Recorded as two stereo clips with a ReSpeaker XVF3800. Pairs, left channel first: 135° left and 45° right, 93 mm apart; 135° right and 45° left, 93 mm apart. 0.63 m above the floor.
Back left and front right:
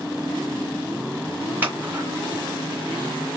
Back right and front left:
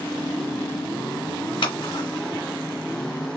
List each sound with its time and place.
1.6 s scissors: 115° right, 1.9 m